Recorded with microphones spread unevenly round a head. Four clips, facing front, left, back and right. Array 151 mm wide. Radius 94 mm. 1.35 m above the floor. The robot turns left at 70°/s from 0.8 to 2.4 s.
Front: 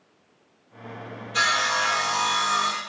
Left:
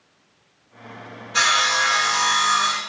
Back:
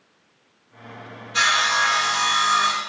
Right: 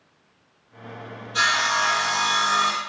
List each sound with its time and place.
1.3 s sawing: 30° left, 1.1 m; by 2.8 s 45° right, 1.1 m